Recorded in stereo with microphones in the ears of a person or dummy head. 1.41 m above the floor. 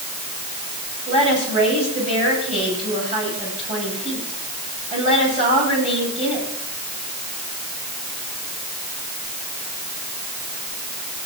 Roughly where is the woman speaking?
Right.